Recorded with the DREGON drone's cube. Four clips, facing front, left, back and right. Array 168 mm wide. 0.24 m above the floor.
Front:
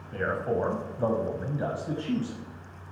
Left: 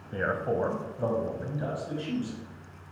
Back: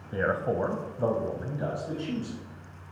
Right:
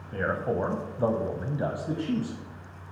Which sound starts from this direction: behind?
A man speaking, at 0.1 s.